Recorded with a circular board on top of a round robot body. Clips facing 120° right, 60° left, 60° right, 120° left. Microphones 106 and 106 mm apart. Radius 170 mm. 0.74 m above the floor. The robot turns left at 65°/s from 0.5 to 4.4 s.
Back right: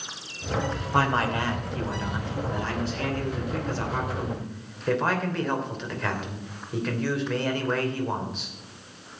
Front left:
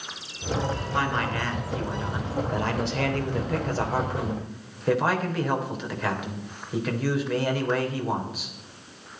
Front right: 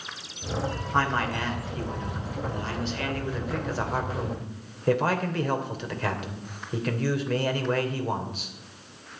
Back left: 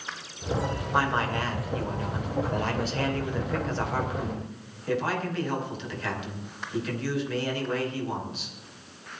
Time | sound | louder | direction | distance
0.9 | a man speaking | back right 5 dB, even | 155° right | 3 m